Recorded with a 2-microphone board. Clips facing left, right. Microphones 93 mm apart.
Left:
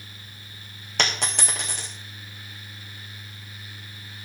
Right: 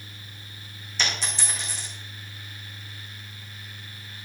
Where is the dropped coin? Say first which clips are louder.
Left 3 dB; 60° left (ahead or behind), 2.0 m.